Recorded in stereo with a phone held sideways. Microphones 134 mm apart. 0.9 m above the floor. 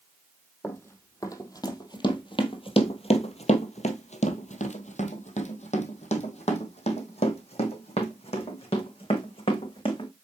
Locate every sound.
0.6 s running footsteps: 20° left (ahead or behind), 2 m; by 10.1 s 40° left (ahead or behind), 4 m